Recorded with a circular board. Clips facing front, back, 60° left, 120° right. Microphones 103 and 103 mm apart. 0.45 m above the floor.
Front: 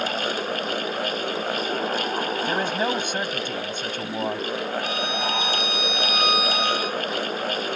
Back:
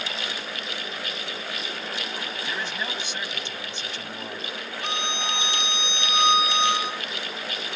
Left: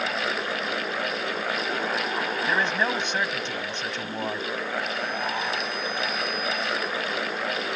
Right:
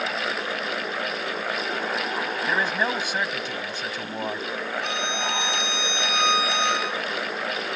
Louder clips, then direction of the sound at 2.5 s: Front 7 dB, even; 35° right.